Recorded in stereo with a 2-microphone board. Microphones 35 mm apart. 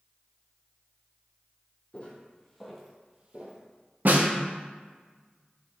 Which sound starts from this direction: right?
A snare drum, at 4.0 s.